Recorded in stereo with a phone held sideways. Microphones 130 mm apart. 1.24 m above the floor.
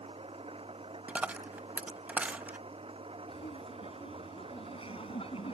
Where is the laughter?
45° left (ahead or behind).